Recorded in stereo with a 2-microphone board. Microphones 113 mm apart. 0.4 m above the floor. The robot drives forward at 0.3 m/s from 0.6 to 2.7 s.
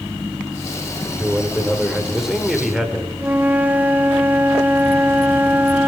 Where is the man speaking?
5° right (ahead or behind), 1.6 m.